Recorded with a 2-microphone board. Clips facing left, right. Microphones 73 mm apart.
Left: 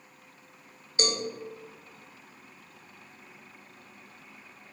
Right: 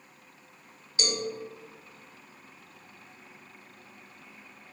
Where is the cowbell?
40° left (ahead or behind), 1.1 m.